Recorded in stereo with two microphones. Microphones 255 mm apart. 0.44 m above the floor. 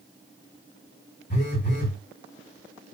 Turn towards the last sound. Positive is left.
turn(degrees=30)  # may be behind; listen again after turning